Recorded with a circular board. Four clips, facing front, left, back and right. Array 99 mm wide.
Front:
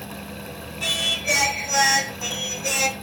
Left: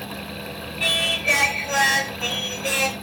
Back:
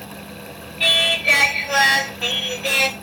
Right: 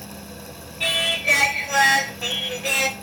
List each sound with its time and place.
0.8 s singing: 175° right, 0.6 m